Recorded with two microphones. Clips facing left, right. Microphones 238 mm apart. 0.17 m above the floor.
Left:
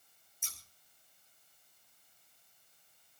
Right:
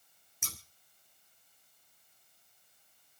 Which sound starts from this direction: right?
Scissors, at 0.4 s.